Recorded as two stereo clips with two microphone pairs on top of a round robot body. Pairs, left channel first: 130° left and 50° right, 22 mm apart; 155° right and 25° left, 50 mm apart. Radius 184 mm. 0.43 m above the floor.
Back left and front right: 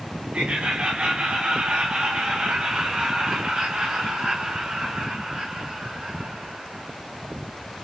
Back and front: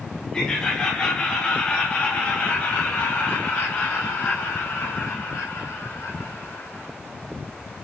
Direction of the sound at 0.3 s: 85° right.